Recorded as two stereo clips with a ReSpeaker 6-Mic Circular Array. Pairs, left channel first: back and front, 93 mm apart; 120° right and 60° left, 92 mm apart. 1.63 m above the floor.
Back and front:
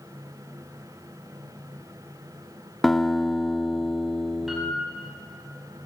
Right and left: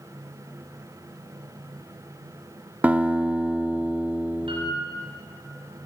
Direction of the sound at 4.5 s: 85° left.